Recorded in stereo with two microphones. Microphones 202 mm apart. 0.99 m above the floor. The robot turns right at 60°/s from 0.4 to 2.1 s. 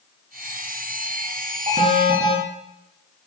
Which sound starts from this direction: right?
An alarm, at 1.7 s.